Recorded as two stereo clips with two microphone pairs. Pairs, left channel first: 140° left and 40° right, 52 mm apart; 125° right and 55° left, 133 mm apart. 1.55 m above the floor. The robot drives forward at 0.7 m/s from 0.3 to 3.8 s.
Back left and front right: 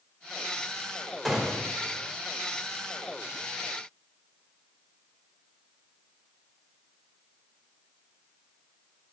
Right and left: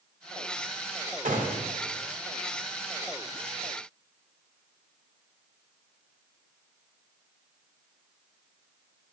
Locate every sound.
1.2 s a gunshot: 50° left, 2 m; by 1.6 s 60° left, 2 m